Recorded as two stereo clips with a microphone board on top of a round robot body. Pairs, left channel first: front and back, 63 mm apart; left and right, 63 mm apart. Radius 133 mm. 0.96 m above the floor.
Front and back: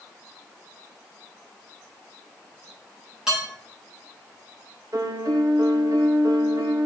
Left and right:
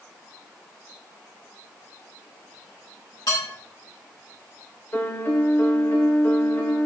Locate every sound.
3.3 s dishes clattering: 100° left, 5.5 m
4.9 s a piano: 150° left, 1.8 m